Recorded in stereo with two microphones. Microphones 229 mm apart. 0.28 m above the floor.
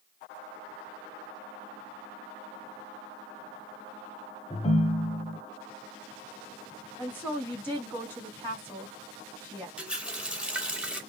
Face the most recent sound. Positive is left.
turn(degrees=-5)  # may be behind; listen again after turning